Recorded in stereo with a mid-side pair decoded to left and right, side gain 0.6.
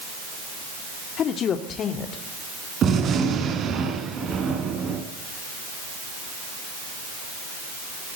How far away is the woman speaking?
About 2 m.